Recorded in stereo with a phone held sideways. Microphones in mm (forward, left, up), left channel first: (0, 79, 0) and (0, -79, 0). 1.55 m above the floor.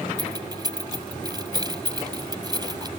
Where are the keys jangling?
30° right (ahead or behind).